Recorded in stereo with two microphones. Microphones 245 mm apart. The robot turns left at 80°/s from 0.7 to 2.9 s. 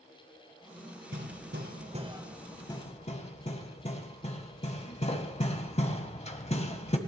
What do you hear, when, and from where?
1.1 s hammering: 50° right (ahead or behind), 1.7 m; by 7.0 s 30° left (ahead or behind), 1.7 m